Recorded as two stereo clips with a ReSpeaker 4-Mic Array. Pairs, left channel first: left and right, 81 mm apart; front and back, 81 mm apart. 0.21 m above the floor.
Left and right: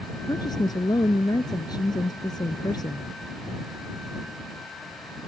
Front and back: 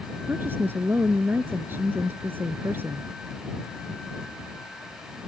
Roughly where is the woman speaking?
Behind left.